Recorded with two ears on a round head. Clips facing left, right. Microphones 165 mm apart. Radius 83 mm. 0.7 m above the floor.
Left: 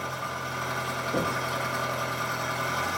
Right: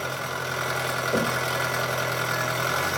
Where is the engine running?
70° right (ahead or behind), 1.6 m.